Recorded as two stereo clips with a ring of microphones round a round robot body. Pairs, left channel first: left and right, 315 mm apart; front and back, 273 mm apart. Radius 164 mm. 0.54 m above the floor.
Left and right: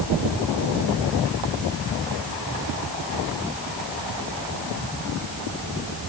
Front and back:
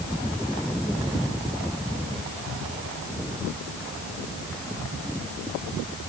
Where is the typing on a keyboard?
No typing on a keyboard in this recording.